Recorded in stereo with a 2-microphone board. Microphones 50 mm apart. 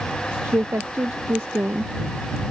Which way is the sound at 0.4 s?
60° right (ahead or behind).